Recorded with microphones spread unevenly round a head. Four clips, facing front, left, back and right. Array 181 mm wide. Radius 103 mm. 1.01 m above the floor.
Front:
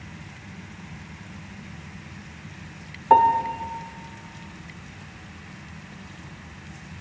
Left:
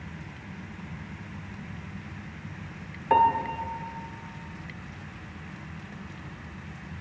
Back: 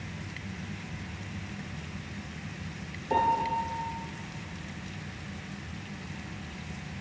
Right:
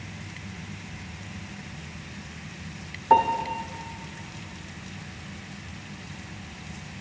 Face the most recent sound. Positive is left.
turn(degrees=-25)